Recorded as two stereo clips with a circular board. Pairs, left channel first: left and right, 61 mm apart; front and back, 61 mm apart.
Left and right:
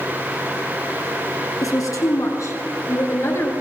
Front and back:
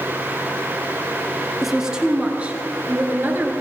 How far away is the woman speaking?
About 2.5 m.